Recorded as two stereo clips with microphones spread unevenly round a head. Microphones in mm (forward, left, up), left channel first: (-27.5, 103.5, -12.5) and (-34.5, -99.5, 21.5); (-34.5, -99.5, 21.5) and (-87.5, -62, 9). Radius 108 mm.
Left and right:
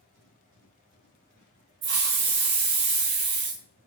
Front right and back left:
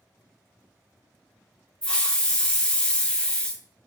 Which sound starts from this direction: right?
A hiss, at 1.8 s.